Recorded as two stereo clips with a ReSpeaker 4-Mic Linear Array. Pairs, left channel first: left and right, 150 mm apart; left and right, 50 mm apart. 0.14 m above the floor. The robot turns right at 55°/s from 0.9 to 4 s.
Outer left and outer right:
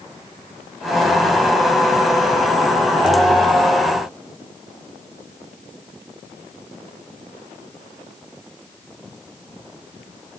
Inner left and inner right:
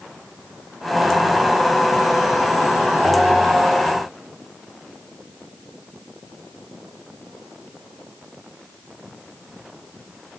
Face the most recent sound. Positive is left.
No sound to turn to.